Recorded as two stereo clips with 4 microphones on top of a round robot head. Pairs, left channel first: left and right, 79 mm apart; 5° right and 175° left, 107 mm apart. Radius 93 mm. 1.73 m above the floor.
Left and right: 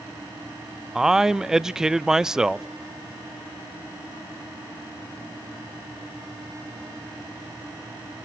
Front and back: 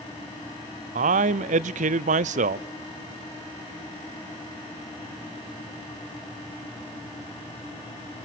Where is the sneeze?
I don't hear a sneeze.